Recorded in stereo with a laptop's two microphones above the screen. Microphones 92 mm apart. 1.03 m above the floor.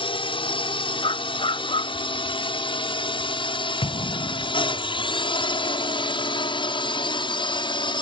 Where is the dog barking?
65° left (ahead or behind).